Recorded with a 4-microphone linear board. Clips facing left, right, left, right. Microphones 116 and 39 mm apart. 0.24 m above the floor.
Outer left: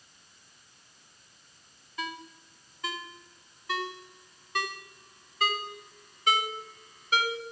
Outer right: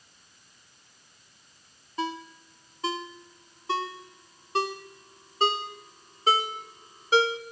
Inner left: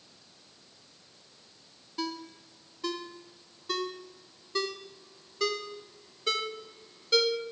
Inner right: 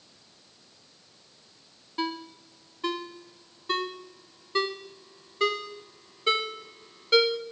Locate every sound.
2.0 s a ringtone: 30° right (ahead or behind), 1.5 m